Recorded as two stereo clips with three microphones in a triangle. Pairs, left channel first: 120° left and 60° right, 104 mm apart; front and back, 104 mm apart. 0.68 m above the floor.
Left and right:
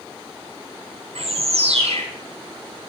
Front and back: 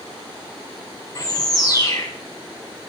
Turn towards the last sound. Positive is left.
turn(degrees=-55)